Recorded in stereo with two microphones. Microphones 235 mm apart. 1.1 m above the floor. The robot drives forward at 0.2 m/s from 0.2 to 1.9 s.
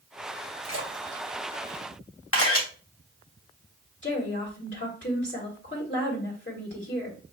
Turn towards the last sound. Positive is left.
turn(degrees=50)  # may be behind; listen again after turning